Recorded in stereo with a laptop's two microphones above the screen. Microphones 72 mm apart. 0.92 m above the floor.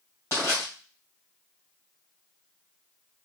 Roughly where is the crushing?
Left.